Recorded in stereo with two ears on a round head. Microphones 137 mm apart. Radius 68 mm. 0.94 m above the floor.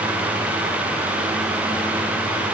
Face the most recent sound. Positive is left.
No sound to turn to.